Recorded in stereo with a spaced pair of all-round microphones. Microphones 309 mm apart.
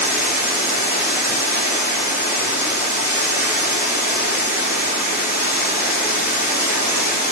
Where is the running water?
30° left (ahead or behind), 2.5 m.